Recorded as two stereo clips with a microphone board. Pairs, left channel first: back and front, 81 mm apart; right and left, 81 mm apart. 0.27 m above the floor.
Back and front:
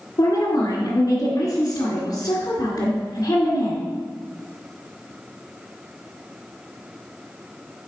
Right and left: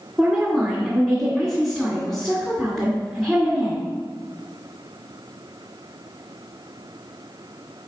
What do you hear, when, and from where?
0.2 s a woman speaking: straight behind, 1.9 m